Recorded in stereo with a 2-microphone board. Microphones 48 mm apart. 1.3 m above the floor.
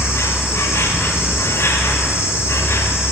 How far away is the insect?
About 1.5 m.